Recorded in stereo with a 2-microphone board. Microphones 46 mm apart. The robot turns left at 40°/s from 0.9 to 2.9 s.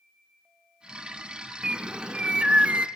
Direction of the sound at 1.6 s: 20° right (ahead or behind).